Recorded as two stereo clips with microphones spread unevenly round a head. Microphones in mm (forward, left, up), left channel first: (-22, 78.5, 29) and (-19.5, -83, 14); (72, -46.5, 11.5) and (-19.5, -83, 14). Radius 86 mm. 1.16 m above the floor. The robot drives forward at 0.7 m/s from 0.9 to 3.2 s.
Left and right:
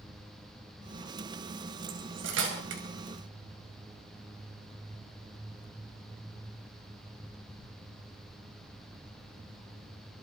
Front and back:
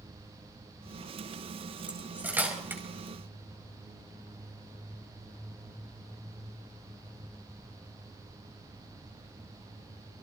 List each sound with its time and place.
1.9 s cutlery clinking: 80° right, 4.5 m; by 2.8 s 90° right, 4.5 m